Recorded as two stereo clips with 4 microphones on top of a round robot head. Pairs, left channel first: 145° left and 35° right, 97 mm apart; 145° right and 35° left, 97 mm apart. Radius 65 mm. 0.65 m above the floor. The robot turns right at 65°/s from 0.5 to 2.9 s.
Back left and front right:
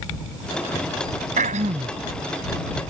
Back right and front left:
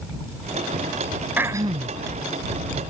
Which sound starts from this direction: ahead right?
Throat clearing, at 1.4 s.